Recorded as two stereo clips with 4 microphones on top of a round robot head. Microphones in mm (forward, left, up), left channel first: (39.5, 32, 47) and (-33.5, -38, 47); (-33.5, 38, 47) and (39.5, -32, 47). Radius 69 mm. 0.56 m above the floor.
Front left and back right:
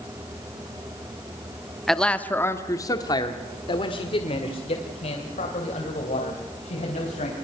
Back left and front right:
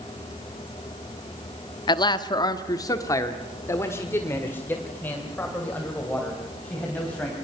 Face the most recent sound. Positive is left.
turn(degrees=60)